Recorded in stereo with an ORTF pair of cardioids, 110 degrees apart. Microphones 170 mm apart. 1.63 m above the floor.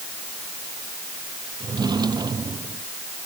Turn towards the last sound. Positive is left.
turn(degrees=-25)